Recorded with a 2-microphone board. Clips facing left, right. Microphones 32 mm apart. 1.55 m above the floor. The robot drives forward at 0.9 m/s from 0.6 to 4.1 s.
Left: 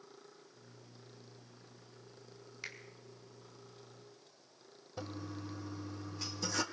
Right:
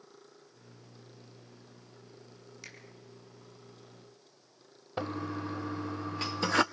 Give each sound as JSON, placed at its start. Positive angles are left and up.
{"t": 2.6, "sound": "a finger snap", "side_deg": 20, "distance_m": 4.0}
{"t": 5.0, "sound": "a toilet flushing", "side_deg": -45, "distance_m": 0.8}